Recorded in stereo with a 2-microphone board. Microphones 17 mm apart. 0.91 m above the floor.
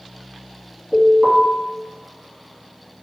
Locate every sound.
0.9 s an alarm: 40° right (ahead or behind), 1.4 m